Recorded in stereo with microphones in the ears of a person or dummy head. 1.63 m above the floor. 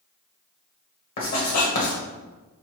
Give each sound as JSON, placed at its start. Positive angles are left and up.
{"t": 1.2, "sound": "writing", "side_deg": 45, "distance_m": 1.3}